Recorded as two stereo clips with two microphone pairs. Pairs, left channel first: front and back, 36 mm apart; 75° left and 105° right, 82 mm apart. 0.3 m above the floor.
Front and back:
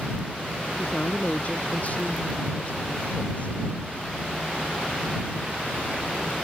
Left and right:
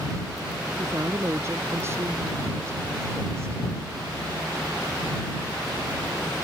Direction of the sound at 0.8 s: 45° right.